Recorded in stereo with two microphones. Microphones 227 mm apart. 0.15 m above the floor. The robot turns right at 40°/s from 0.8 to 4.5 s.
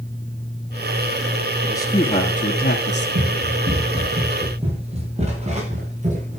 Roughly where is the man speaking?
Ahead.